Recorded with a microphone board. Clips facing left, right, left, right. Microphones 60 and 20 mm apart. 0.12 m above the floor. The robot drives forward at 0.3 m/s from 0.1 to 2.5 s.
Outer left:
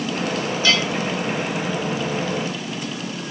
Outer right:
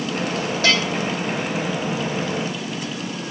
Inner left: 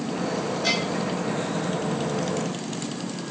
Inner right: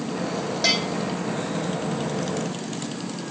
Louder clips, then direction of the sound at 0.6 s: Outer right 1 dB, inner right 4 dB; 75° right (ahead or behind).